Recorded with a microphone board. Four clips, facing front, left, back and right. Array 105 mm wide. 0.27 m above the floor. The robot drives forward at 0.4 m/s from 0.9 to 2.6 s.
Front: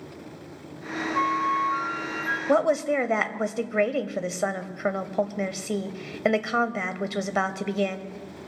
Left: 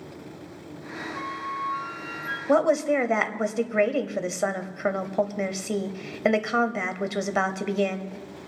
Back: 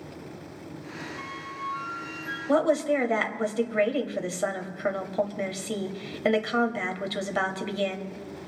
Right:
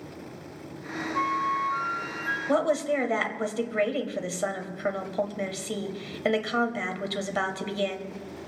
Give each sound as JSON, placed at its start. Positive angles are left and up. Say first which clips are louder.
{"t": 1.1, "sound": "a flute", "louder": "right 7 dB, front 14 dB", "azimuth_deg": -25, "distance_m": 1.4}
{"t": 2.5, "sound": "a woman speaking", "louder": "left 4 dB, front 1 dB", "azimuth_deg": 50, "distance_m": 0.9}